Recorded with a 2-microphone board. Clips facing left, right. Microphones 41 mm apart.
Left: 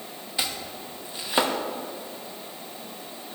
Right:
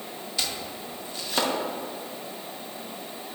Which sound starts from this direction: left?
Chopping, at 0.4 s.